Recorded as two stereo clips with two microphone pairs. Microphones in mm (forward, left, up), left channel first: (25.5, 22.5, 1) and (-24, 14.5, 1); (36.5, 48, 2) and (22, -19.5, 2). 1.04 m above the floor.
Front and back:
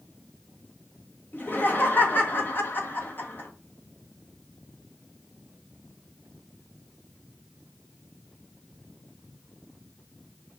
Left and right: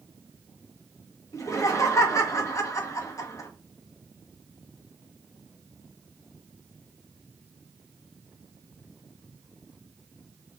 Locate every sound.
1.3 s laughter: 50° left, 0.8 m